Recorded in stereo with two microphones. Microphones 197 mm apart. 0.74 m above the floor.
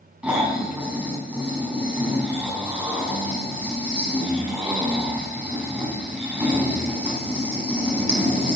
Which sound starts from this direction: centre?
Snoring, at 0.2 s.